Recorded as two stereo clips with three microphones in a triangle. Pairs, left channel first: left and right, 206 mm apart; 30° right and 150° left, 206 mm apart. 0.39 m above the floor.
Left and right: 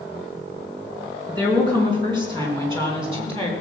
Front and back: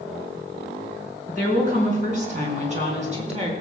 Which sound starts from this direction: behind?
A woman speaking, at 1.3 s.